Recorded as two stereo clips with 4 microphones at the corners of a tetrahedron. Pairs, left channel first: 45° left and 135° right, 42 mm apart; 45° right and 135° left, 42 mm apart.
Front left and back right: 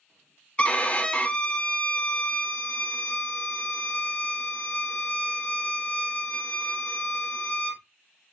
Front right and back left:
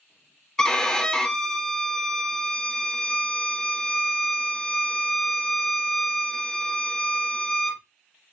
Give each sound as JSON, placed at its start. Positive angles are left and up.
{"t": 0.6, "sound": "a violin", "azimuth_deg": 25, "distance_m": 0.6}